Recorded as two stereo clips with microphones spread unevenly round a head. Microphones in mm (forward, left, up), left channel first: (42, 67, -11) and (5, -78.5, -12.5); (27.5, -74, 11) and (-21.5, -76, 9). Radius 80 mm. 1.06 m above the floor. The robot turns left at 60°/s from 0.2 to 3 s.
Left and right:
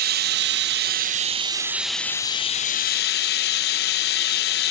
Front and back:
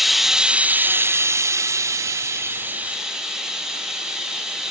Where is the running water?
90° right, 0.9 m; by 4.7 s 100° left, 0.9 m.